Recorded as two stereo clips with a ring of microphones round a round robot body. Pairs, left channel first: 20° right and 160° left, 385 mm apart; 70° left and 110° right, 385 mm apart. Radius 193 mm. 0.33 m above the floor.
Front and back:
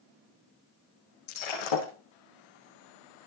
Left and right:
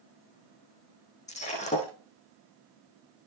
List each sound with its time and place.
1.3 s breaking glass: 5° right, 6.5 m